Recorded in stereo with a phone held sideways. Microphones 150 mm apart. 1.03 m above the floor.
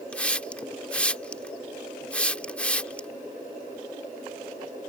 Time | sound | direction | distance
0.1 | a hiss | 10° left (ahead or behind) | ?